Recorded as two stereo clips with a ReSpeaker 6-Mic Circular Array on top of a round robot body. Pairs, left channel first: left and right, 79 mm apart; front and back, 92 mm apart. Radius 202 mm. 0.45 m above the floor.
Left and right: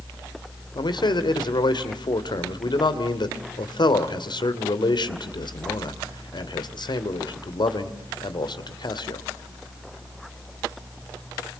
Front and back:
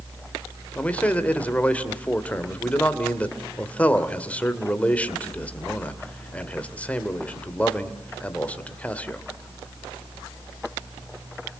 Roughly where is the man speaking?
Left.